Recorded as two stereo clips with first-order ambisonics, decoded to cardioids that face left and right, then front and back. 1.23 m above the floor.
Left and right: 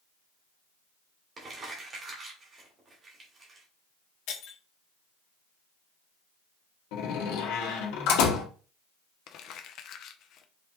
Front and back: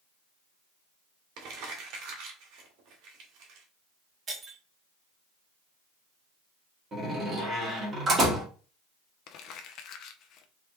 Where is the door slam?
110° left, 1.9 m.